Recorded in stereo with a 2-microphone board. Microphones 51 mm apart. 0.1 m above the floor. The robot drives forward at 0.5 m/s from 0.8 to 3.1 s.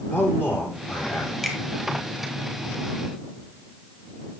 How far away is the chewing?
No chewing in this recording.